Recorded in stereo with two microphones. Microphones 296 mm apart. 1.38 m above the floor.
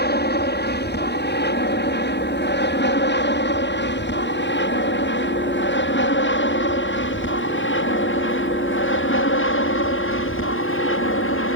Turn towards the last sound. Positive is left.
turn(degrees=45)  # may be behind; listen again after turning